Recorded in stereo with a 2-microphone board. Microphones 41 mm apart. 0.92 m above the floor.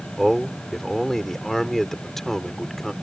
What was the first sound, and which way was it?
A man speaking, 10° left (ahead or behind).